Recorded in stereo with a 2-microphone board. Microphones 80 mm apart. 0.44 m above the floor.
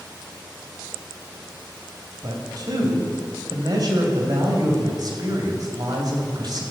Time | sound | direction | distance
2.2 | a man speaking | 55° right (ahead or behind) | 2.5 m